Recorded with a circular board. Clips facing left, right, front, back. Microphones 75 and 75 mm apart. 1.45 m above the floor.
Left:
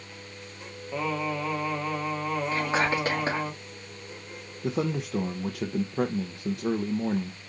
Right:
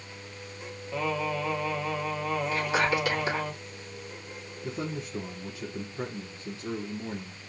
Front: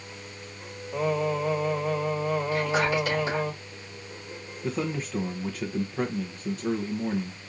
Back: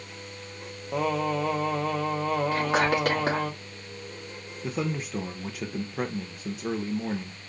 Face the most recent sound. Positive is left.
turn(degrees=95)